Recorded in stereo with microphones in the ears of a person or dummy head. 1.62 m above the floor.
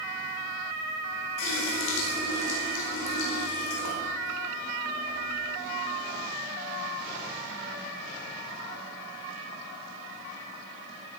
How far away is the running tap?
About 4.5 m.